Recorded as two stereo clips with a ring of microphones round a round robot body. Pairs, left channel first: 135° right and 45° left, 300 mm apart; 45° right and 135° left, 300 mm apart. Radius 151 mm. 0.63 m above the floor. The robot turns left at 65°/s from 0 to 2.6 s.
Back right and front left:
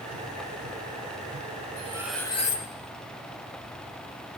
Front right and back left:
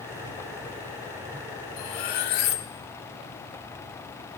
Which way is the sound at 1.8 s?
20° right.